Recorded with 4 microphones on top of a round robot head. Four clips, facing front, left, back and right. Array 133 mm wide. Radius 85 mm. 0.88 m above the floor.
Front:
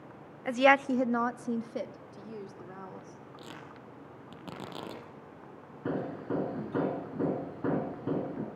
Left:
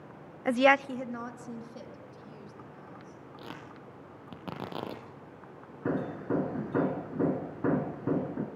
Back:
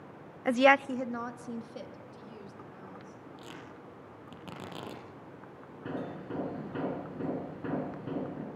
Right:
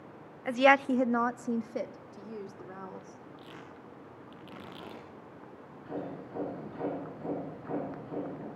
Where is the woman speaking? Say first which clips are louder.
Even, even; 130° left, 0.5 m; by 3.2 s 55° right, 3.5 m.